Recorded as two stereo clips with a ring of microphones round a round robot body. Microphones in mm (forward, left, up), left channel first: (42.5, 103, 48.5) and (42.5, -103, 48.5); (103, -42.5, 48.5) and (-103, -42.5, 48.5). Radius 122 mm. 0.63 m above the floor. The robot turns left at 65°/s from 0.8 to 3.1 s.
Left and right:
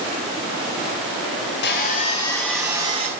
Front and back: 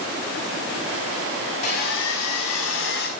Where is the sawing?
60° left, 4.5 m; by 3.1 s 35° right, 4.5 m.